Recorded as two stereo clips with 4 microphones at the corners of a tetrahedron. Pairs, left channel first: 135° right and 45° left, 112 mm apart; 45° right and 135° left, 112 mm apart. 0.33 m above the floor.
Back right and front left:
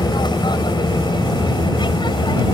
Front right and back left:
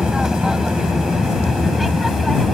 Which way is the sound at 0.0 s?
145° right.